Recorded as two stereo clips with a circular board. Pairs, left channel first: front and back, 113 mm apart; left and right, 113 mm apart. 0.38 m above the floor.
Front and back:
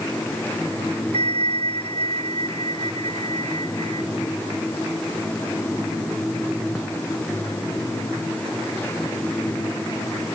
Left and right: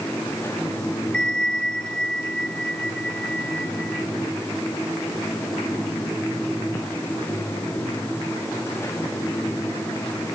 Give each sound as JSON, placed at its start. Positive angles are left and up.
{"t": 1.1, "sound": "a bell", "azimuth_deg": 175}